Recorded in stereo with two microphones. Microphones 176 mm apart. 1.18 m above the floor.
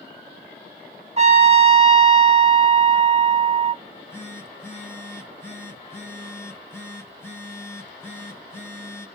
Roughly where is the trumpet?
Right.